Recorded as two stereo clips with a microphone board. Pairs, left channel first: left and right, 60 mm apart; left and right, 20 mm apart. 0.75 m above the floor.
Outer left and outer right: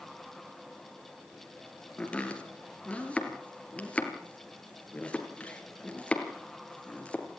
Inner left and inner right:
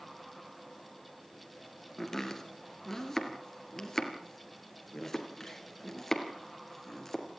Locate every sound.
2.0 s chopping: 20° left (ahead or behind), 3 m